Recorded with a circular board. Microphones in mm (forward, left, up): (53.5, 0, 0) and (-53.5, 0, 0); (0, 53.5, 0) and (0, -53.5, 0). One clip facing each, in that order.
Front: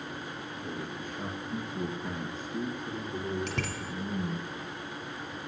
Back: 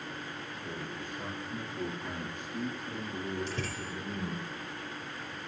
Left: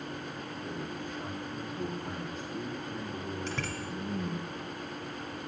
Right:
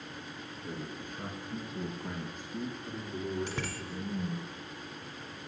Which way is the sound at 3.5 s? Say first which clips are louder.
Front 2 dB, left 2 dB; 15° right.